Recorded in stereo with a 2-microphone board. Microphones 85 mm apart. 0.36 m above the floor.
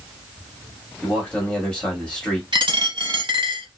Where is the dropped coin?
60° right (ahead or behind), 0.9 m.